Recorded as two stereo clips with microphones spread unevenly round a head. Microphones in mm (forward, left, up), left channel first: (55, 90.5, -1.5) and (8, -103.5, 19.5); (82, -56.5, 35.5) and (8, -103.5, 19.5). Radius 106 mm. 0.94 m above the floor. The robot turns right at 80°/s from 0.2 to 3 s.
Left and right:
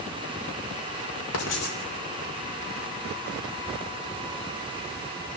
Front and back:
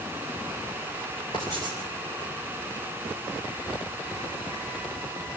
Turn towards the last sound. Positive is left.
turn(degrees=-130)